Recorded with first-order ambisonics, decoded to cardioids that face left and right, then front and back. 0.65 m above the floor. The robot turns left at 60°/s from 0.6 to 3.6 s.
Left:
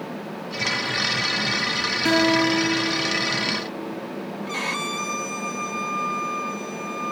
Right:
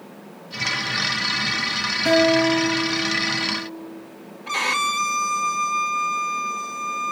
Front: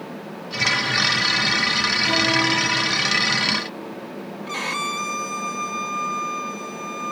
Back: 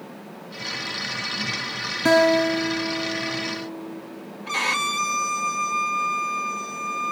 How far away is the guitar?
About 3.5 m.